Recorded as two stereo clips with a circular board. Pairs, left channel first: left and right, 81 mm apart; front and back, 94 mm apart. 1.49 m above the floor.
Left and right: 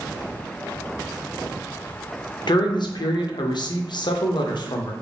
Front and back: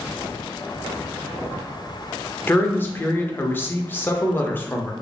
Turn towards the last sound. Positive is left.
turn(degrees=70)